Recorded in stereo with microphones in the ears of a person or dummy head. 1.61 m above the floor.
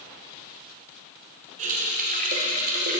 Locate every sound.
1.6 s a running tap: 45° right (ahead or behind), 0.8 m